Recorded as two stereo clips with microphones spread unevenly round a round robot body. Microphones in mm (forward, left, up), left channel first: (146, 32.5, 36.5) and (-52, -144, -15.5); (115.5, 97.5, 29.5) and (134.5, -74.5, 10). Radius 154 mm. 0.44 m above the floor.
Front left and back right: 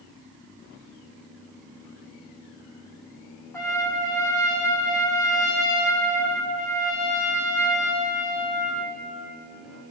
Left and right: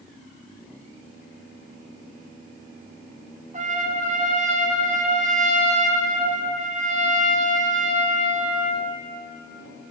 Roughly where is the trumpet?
Ahead right.